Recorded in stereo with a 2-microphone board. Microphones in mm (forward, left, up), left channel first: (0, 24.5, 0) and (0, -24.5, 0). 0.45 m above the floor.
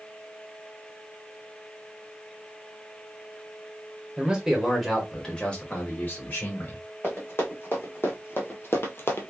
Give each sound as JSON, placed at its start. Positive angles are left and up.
{"t": 4.2, "sound": "a man speaking", "side_deg": -20, "distance_m": 1.3}
{"t": 7.0, "sound": "running footsteps", "side_deg": 45, "distance_m": 1.8}